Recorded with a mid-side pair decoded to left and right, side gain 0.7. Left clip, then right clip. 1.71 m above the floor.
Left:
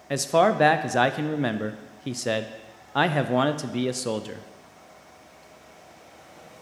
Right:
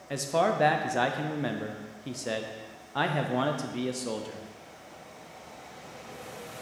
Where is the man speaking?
30° left, 0.5 m.